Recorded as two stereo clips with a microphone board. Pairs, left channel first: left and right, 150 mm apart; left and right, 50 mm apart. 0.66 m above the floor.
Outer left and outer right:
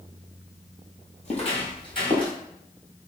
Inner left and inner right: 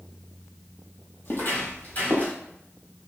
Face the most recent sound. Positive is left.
turn(degrees=30)  # may be behind; listen again after turning